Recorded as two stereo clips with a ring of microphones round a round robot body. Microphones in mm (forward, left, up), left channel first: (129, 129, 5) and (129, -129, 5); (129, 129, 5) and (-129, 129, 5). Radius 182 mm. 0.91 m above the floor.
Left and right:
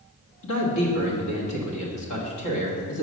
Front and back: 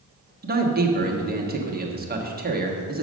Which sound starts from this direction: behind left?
A man speaking, at 0.4 s.